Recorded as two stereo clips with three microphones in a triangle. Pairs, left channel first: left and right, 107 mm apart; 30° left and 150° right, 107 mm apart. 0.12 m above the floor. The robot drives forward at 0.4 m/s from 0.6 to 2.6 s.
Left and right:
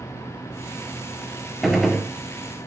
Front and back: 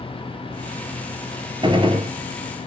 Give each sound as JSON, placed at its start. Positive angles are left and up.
{"t": 1.6, "sound": "a gunshot", "azimuth_deg": 180, "distance_m": 1.3}